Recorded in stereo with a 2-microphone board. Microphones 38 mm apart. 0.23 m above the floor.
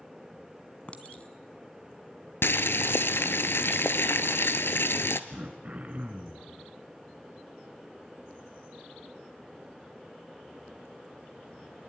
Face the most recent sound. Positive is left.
turn(degrees=-35)  # may be behind; listen again after turning